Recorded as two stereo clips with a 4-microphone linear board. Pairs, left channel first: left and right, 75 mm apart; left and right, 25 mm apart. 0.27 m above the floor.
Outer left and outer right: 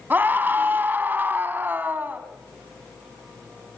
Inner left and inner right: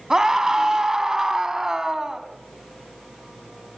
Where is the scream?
25° right (ahead or behind), 2 m.